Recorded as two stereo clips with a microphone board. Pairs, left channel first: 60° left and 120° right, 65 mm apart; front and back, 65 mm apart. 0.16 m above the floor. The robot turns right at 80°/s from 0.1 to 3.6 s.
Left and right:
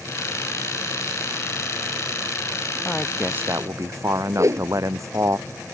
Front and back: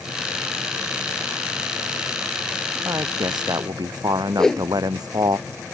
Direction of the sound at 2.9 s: 135° left.